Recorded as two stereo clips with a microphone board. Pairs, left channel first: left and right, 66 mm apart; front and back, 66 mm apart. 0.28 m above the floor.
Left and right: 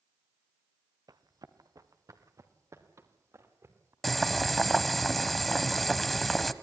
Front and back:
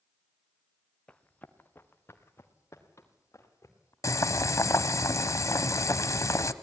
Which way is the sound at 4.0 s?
5° left.